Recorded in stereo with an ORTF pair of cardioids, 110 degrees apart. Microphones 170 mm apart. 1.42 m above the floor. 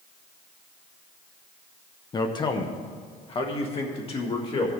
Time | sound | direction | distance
2.1 | a man speaking | 25° left | 0.7 m